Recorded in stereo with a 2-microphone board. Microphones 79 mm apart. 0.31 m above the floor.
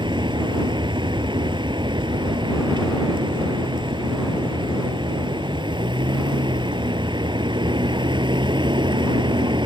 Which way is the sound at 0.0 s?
80° right.